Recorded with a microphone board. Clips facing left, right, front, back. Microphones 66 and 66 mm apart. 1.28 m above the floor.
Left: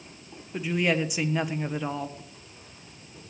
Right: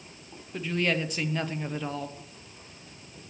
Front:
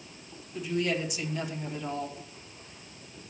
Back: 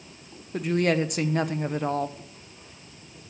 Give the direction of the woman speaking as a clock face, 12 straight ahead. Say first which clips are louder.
Left 2 dB, back 6 dB; 6 o'clock.